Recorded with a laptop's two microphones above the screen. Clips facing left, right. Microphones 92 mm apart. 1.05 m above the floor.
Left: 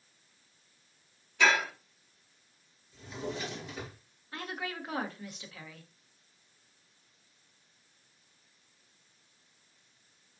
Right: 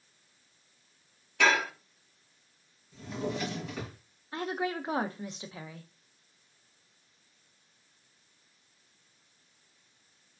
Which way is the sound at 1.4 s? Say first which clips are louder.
Right 1 dB; 70° right (ahead or behind).